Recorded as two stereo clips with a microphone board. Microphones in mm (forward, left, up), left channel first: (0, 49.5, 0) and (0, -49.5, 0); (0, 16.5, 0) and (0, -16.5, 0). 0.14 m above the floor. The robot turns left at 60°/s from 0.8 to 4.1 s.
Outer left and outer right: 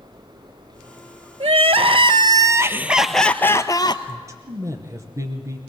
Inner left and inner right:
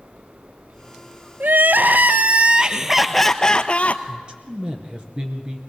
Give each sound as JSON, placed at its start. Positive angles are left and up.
{"t": 1.4, "sound": "crying", "azimuth_deg": -80, "distance_m": 0.7}
{"t": 4.1, "sound": "a man speaking", "side_deg": -35, "distance_m": 2.0}